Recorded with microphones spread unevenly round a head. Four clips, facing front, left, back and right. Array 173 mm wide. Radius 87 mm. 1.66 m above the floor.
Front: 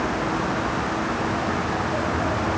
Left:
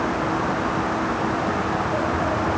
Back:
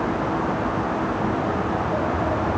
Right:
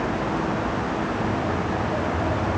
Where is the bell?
No bell in this recording.